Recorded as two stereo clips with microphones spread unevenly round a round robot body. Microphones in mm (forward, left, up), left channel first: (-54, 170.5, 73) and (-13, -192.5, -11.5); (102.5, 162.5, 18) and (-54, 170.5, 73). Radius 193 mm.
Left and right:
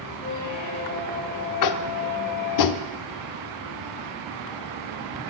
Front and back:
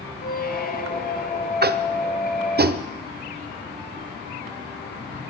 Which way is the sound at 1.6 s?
140° left.